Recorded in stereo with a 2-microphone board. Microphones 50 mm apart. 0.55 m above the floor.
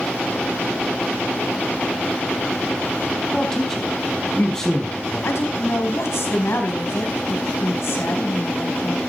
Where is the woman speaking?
70° left (ahead or behind), 4.5 m.